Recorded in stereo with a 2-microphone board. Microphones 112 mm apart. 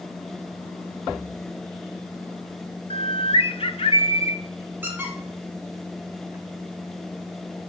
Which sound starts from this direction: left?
A bird, at 2.9 s.